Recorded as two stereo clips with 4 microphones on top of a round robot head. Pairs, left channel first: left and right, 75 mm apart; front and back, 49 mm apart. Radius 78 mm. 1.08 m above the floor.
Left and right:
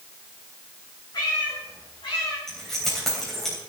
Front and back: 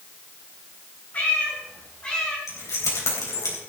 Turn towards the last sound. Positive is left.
turn(degrees=5)